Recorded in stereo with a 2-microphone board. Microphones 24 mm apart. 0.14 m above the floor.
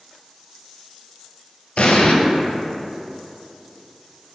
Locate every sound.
1.8 s an explosion: 65° left (ahead or behind), 0.6 m